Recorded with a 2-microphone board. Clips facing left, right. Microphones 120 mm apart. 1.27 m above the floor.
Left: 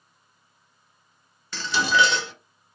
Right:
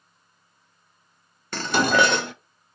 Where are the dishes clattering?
55° right (ahead or behind), 0.5 m.